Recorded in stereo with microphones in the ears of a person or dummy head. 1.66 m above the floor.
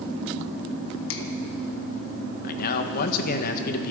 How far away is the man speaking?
About 1.4 m.